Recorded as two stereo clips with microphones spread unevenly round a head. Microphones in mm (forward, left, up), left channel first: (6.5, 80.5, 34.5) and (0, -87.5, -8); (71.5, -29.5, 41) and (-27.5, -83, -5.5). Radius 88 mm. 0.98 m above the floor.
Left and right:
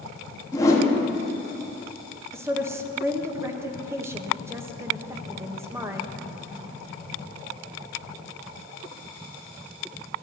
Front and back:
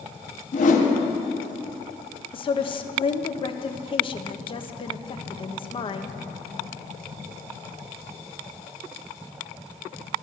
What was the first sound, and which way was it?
A whoosh, 15° left.